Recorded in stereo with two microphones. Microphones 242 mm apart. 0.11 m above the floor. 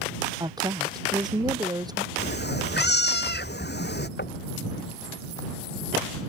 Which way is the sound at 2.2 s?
45° left (ahead or behind).